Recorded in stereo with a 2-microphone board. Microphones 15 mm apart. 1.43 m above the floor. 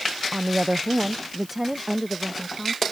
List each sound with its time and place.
0.3 s a woman speaking: 65° right (ahead or behind); by 2.8 s 5° right (ahead or behind)